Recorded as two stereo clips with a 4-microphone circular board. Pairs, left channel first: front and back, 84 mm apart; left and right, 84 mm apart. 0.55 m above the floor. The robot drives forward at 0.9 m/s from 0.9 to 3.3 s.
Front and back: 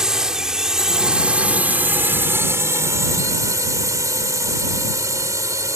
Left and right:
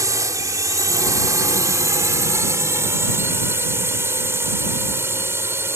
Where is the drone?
100° right; by 5.8 s 140° right.